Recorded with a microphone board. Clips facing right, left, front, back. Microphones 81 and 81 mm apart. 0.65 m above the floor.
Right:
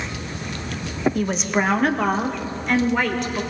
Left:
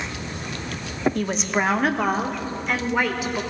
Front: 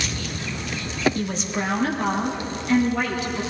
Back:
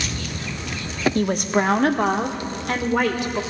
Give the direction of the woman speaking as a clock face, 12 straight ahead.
6 o'clock.